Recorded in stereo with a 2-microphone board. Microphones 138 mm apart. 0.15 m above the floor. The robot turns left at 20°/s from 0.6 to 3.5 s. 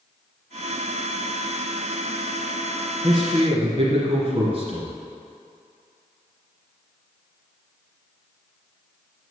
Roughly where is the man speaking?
Right.